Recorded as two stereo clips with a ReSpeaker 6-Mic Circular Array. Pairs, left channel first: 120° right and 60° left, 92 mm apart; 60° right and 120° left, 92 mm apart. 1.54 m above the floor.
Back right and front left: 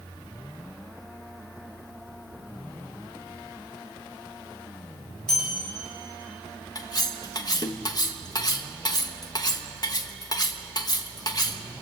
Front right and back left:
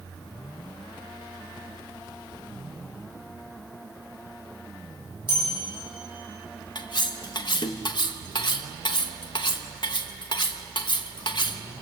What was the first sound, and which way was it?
A bell, 155° left.